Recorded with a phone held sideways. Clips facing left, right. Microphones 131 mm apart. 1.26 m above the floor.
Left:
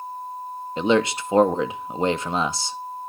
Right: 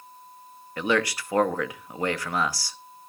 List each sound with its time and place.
0.8 s a man speaking: 25° left (ahead or behind), 0.6 m